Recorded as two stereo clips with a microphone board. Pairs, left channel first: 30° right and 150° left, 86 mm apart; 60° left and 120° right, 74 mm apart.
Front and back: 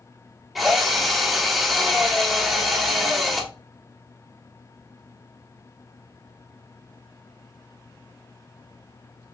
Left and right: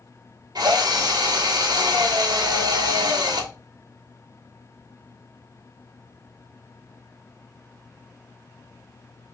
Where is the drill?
120° right, 1.3 m.